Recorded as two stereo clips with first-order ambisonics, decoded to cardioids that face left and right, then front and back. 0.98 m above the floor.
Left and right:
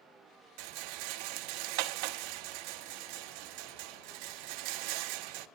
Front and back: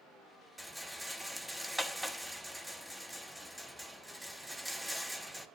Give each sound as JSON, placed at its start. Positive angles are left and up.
{"t": 0.6, "sound": "a rattle", "azimuth_deg": -90, "distance_m": 0.8}